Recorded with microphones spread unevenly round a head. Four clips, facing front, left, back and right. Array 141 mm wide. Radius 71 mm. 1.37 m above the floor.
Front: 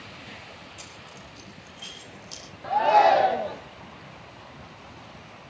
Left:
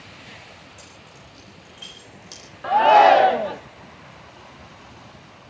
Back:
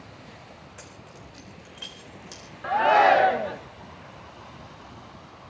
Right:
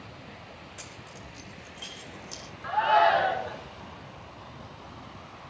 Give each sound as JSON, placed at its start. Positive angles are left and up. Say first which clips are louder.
{"t": 0.8, "sound": "keys jangling", "louder": "right 1 dB, even", "azimuth_deg": -160, "distance_m": 3.5}
{"t": 2.6, "sound": "a shout", "louder": "left 9 dB, even", "azimuth_deg": 110, "distance_m": 1.1}